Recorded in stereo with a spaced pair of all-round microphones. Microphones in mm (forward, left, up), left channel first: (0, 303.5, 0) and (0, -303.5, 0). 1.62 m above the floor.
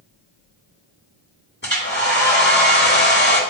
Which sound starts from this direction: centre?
A hair dryer, at 1.6 s.